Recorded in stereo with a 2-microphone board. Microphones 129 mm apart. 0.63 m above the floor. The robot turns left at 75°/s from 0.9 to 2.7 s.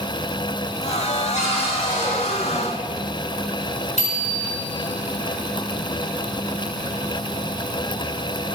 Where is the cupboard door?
75° left, 6 m; by 2.6 s 20° right, 6 m.